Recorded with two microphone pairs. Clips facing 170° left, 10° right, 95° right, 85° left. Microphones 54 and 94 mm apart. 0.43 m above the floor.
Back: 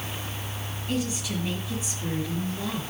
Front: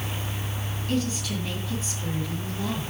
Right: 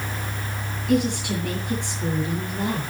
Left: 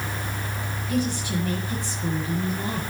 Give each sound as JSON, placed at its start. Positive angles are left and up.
{"t": 0.9, "sound": "a woman speaking", "azimuth_deg": -115, "distance_m": 7.5}